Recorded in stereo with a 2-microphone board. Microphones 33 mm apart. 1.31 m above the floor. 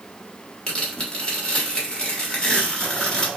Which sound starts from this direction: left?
Tearing paper, at 0.7 s.